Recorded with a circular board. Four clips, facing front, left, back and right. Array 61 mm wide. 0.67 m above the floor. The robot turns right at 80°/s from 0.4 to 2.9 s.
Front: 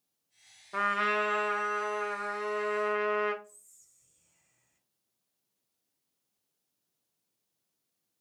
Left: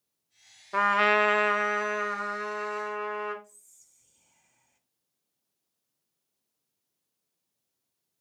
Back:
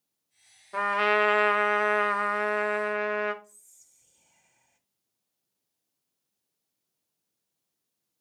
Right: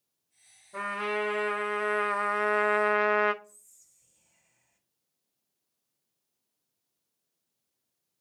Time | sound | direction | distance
0.7 | a trumpet | 90° left | 0.6 m
3.4 | whispering | 160° left | 1.2 m